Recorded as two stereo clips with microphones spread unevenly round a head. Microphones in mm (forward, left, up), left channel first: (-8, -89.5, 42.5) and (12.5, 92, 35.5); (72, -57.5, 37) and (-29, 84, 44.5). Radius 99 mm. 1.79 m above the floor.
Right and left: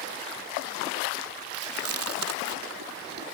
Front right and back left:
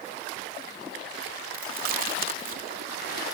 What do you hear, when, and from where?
1.5 s chewing: 85° left